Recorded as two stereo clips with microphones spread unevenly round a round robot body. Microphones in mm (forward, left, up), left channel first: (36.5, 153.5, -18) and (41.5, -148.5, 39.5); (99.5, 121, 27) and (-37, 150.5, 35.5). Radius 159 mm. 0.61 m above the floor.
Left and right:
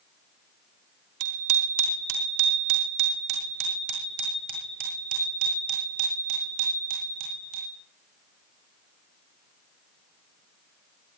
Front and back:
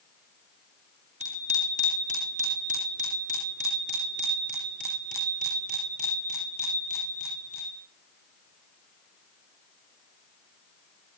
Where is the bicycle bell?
130° right, 4 m.